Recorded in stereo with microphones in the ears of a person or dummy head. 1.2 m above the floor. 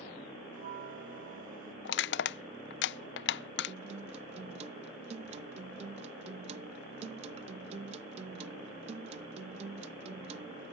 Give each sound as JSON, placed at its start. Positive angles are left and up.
{"t": 0.5, "sound": "a bell", "side_deg": -40}
{"t": 1.9, "sound": "crushing", "side_deg": 55}
{"t": 3.7, "sound": "a guitar", "side_deg": -40}